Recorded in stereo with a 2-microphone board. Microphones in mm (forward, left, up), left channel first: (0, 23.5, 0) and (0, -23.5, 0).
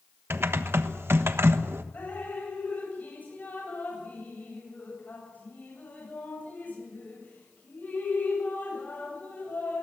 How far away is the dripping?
About 9 m.